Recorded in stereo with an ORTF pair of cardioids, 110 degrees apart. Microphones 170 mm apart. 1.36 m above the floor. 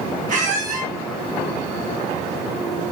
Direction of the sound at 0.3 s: 55° right.